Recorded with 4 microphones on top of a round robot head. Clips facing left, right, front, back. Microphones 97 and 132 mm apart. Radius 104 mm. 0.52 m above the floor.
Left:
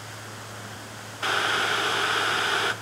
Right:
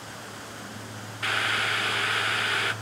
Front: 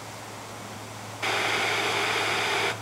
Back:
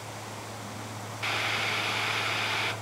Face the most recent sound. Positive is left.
turn(degrees=30)